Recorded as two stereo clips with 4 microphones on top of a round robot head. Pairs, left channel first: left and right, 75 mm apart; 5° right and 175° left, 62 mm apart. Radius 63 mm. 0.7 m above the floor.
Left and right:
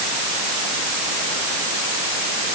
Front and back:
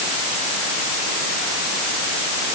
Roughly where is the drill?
No drill in this recording.